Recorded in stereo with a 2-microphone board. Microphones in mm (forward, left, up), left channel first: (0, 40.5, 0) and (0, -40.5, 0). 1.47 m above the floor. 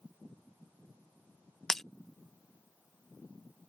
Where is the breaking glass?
5° left (ahead or behind).